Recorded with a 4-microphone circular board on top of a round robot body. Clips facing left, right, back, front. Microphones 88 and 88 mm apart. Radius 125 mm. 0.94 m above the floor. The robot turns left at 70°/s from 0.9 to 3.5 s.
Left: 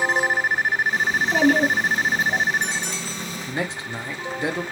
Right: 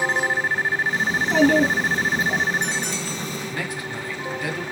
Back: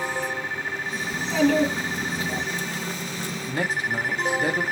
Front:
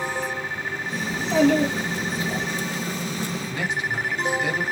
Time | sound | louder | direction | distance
1.1 | a child speaking | right 2 dB, front 2 dB | 60° right | 1.2 m
3.5 | a man speaking | left 1 dB, back 4 dB | 150° left | 0.6 m